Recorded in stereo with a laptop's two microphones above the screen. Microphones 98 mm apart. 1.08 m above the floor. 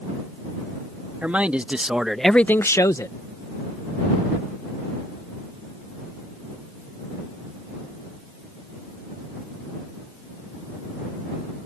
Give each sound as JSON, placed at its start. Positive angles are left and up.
{"t": 1.2, "sound": "a man speaking", "side_deg": -15}